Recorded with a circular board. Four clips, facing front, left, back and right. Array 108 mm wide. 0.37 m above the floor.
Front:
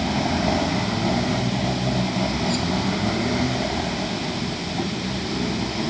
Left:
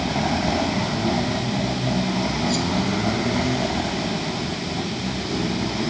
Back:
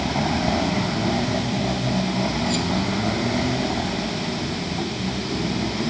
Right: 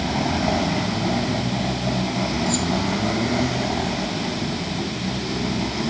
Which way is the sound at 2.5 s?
170° left.